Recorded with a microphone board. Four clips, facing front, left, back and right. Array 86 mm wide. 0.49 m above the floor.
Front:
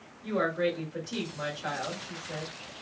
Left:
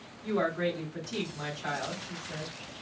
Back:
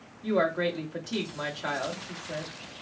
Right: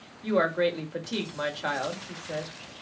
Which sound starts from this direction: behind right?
A woman speaking, at 0.2 s.